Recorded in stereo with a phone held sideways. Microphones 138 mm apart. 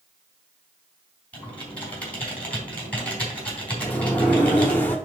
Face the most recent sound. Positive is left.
turn(degrees=15)  # may be behind; listen again after turning